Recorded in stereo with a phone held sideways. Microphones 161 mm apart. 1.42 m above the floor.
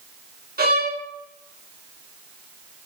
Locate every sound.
0.6 s a violin: 70° right (ahead or behind), 1.6 m